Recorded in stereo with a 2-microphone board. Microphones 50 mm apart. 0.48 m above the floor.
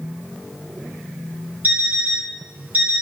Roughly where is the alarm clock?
Right.